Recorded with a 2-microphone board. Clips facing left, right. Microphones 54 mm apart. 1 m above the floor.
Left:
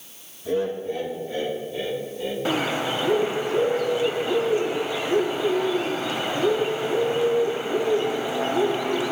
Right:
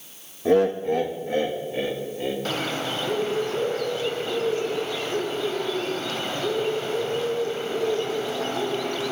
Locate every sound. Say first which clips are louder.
0.5 s laughter: right 6 dB; 65° right (ahead or behind), 1.3 m; by 2.4 s 40° right (ahead or behind), 2.5 m
2.5 s a bird: left 3 dB; 15° left (ahead or behind), 0.8 m